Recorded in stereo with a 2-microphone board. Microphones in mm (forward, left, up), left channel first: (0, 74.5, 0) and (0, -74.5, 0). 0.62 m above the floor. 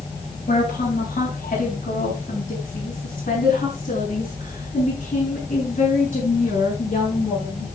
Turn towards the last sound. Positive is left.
turn(degrees=50)  # may be behind; listen again after turning